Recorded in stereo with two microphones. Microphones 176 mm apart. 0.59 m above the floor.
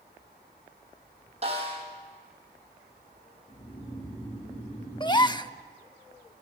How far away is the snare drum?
About 6 m.